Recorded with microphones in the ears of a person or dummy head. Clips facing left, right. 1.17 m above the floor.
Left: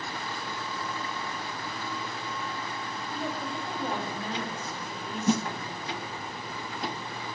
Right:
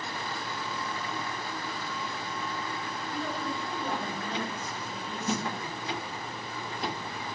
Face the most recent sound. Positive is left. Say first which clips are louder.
# left 6 dB
turn(degrees=75)  # may be behind; listen again after turning